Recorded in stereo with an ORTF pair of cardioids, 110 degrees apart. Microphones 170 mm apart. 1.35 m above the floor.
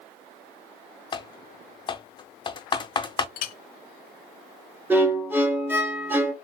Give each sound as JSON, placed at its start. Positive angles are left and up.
{"t": 1.1, "sound": "typing on a keyboard", "azimuth_deg": 30, "distance_m": 0.5}
{"t": 3.4, "sound": "a clink", "azimuth_deg": 60, "distance_m": 0.5}
{"t": 4.9, "sound": "a violin", "azimuth_deg": -10, "distance_m": 0.7}